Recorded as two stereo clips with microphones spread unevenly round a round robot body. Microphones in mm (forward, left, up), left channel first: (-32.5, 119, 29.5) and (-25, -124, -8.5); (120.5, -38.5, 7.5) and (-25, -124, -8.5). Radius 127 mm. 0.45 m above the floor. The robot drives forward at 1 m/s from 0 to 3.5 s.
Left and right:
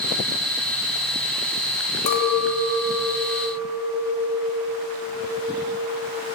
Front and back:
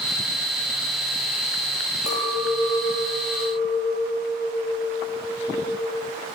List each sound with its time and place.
2.1 s a clink: 90° left, 1.4 m; by 6.1 s 140° left, 2.0 m